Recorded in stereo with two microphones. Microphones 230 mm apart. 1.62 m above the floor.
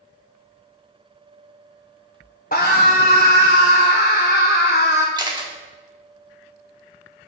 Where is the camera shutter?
20° right (ahead or behind), 1.2 m.